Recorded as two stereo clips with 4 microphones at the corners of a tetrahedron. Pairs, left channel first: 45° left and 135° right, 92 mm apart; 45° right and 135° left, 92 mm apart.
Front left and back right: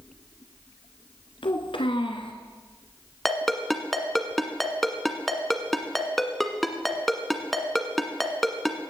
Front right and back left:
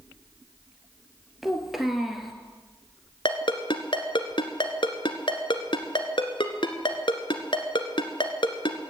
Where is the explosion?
I don't hear an explosion.